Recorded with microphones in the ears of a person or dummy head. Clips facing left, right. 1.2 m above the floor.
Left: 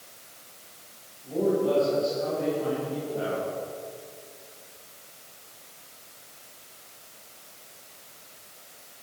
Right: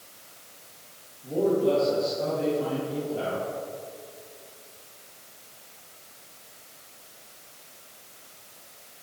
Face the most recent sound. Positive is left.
turn(degrees=-60)  # may be behind; listen again after turning